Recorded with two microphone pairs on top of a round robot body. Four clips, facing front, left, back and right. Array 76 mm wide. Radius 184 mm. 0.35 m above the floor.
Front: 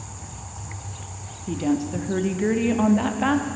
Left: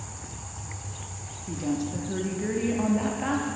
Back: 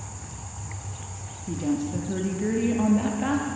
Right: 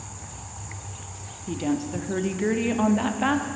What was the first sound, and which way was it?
A woman speaking, 55° right.